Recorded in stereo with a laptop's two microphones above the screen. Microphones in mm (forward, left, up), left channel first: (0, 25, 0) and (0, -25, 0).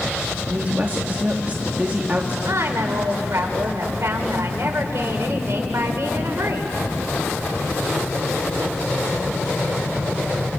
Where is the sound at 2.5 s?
75° right (ahead or behind), 3 m.